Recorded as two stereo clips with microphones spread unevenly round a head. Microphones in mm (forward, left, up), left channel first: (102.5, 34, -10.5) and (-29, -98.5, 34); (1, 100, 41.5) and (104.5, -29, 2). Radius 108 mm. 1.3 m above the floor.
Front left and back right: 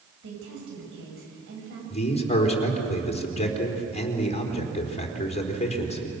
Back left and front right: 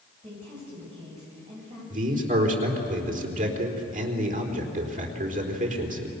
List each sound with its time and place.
0.2 s a woman speaking: 120° right, 8 m
1.9 s a man speaking: 10° right, 4 m